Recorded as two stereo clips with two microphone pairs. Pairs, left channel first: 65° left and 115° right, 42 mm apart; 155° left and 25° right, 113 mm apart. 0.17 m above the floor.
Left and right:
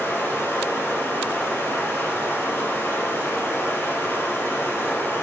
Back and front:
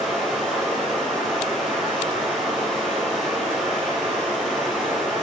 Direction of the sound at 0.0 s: 65° left.